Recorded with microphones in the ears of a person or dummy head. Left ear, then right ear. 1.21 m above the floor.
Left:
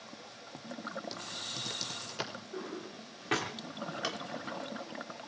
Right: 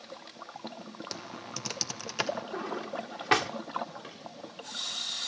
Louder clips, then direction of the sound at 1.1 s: Left 1 dB; 50° right (ahead or behind).